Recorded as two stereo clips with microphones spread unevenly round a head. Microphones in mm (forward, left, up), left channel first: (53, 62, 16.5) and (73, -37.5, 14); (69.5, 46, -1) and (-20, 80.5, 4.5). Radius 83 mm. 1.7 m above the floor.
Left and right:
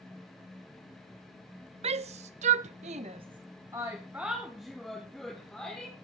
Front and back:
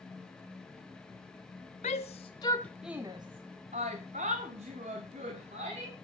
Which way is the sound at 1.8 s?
60° right.